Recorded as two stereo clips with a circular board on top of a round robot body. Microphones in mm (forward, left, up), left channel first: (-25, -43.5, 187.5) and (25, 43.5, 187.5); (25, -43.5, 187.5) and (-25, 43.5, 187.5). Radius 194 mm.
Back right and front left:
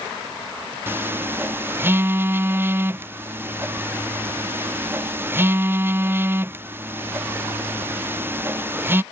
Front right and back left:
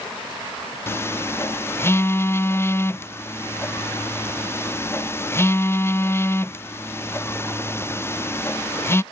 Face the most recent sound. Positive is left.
turn(degrees=0)